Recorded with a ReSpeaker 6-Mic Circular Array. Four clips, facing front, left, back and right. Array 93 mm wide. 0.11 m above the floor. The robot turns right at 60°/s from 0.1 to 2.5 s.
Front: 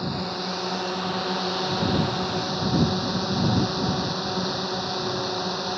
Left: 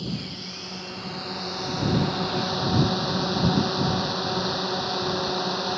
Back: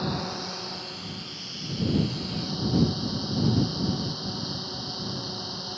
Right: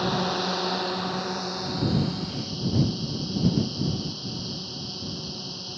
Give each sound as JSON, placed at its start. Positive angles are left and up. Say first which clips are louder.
{"t": 0.0, "sound": "a drone", "louder": "right 8 dB, front 2 dB", "azimuth_deg": -90}